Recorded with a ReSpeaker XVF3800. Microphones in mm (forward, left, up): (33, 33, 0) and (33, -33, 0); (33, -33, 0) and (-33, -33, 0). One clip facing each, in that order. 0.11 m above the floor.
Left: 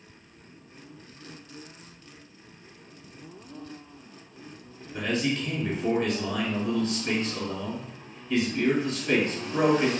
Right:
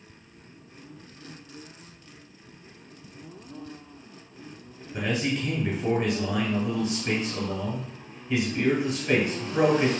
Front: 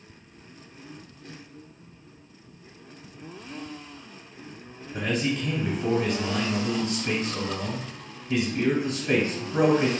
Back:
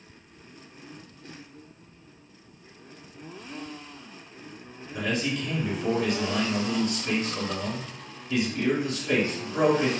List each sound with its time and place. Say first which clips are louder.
4.9 s a man speaking: even, front 1 dB; 30° right, 1.4 m